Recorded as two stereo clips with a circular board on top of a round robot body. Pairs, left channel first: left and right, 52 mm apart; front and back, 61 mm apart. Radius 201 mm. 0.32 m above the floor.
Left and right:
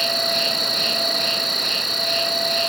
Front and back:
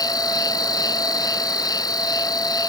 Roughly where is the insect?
Ahead.